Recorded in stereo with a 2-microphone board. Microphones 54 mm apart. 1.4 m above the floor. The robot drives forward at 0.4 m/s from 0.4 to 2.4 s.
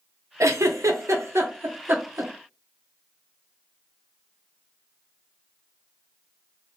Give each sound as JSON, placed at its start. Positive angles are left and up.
{"t": 0.4, "sound": "a giggle", "side_deg": -75, "distance_m": 0.6}